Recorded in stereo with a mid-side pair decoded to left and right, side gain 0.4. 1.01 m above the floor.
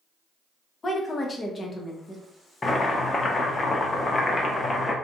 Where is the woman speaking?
35° left, 0.8 m.